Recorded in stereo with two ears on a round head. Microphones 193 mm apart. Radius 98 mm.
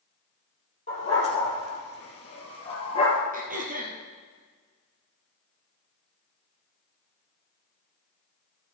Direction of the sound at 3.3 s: 40° right (ahead or behind).